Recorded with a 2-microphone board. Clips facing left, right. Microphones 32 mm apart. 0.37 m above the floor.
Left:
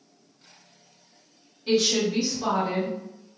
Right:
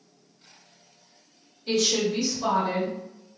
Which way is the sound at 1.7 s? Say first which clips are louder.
Left 1 dB; 30° left (ahead or behind).